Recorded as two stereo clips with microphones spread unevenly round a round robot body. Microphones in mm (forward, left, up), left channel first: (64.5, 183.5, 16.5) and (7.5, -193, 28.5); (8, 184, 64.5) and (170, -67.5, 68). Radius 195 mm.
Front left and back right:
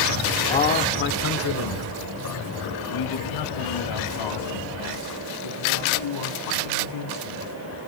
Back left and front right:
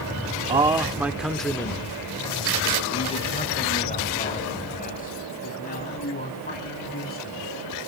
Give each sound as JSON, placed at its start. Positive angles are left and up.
{"t": 0.5, "sound": "a man speaking", "azimuth_deg": 10, "distance_m": 1.1}